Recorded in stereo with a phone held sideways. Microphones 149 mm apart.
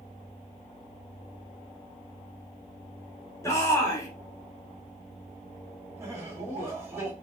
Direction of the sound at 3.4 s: 20° left (ahead or behind).